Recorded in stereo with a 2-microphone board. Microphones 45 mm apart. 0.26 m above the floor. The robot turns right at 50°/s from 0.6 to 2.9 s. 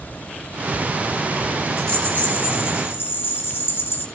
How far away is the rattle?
About 6 m.